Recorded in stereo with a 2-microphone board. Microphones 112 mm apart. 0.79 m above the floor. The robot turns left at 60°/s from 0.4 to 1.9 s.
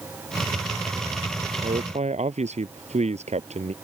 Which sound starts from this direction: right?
A man speaking, at 1.6 s.